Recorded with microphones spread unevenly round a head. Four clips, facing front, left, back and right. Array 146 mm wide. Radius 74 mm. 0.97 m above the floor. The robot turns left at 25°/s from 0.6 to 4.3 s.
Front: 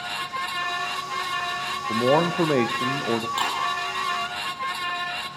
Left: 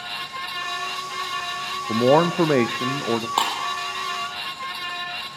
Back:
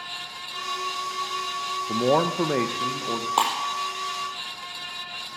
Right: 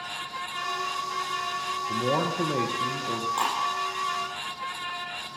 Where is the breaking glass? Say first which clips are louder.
Left 2 dB, back 4 dB; 135° left, 4 m; by 3.6 s 130° left, 4 m.